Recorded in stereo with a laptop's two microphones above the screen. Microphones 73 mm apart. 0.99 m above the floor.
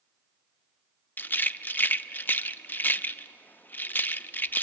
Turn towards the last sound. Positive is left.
turn(degrees=30)  # may be behind; listen again after turning